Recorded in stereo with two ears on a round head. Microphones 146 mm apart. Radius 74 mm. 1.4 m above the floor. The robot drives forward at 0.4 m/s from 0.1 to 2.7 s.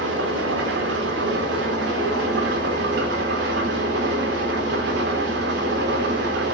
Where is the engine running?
80° right, 4 m; by 6.5 s 85° right, 4 m.